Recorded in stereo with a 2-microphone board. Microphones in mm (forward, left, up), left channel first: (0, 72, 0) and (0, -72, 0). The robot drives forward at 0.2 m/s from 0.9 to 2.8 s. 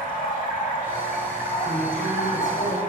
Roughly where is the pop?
No pop in this recording.